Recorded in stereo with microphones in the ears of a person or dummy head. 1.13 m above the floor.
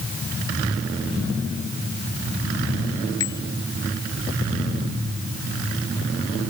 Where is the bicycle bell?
15° left (ahead or behind).